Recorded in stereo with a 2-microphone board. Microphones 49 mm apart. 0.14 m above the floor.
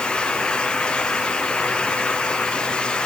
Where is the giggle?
I don't hear a giggle.